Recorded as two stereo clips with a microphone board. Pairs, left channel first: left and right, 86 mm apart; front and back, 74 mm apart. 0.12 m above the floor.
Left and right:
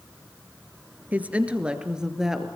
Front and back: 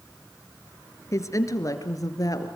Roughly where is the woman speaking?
Ahead right.